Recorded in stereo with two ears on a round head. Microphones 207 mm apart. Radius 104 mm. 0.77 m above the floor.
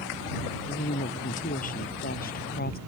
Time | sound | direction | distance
0.5 | a woman speaking | 35° left (ahead or behind) | ?